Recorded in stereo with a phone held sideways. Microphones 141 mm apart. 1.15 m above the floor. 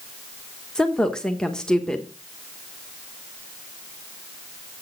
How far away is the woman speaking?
About 1.0 m.